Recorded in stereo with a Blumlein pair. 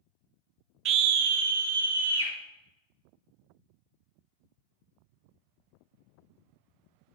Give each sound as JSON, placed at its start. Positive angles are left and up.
{"t": 0.8, "sound": "a scream", "azimuth_deg": -35, "distance_m": 0.8}